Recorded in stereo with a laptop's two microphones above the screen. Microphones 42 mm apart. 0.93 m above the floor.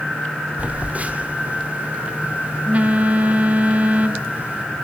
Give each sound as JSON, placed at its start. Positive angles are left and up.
{"t": 0.6, "sound": "a phone buzzing", "side_deg": -35, "distance_m": 2.0}